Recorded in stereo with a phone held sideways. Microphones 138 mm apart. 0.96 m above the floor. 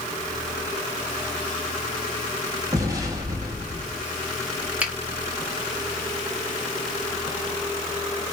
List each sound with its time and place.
2.7 s an explosion: 20° right (ahead or behind), 1.2 m
4.8 s a finger snap: 10° right (ahead or behind), 1.2 m